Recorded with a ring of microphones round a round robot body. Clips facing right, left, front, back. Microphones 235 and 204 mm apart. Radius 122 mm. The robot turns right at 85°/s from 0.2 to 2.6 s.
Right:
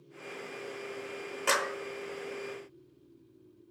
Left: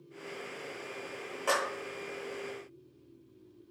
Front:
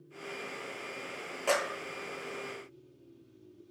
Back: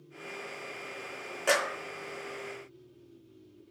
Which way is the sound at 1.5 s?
110° right.